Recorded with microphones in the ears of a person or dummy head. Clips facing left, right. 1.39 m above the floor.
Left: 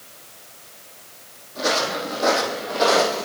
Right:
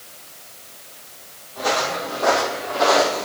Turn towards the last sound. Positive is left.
turn(degrees=15)  # may be behind; listen again after turning